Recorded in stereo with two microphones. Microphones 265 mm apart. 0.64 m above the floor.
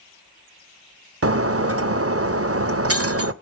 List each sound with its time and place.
1.2 s breaking glass: 60° right (ahead or behind), 0.5 m